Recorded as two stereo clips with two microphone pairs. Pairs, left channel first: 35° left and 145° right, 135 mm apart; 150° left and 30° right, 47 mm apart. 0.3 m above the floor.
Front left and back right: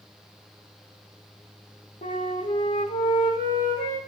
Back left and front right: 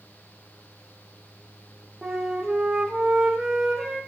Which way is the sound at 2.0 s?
50° left.